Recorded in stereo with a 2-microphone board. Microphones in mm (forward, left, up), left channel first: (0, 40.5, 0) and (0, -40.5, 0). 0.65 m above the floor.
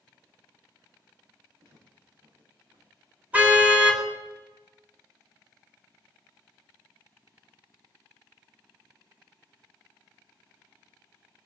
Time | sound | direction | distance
1.6 | footsteps | 75° right (ahead or behind) | 8 m
3.3 | a car horn | 20° right (ahead or behind) | 2.5 m